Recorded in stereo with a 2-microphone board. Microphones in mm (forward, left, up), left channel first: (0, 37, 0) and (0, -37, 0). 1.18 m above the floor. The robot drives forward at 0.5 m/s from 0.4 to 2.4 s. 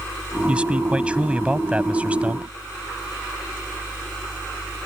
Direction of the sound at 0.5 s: 15° right (ahead or behind).